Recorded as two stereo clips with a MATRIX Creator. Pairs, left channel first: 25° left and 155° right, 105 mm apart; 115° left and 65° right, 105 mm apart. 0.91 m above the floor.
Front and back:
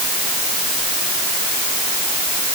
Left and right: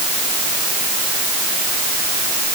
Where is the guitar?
No guitar in this recording.